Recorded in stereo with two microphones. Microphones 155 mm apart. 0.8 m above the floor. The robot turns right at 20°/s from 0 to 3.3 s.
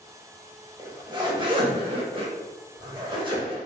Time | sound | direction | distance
0.8 | a zipper | 125° right | 0.6 m